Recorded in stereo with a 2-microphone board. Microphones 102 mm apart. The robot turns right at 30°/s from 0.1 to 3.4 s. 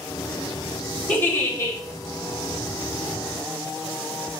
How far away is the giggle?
About 3 m.